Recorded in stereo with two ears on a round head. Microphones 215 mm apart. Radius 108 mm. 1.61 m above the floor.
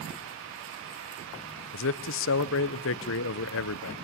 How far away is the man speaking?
About 0.7 m.